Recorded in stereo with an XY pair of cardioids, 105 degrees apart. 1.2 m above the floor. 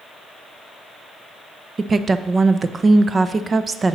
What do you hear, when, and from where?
1.8 s a woman speaking: 35° right, 0.5 m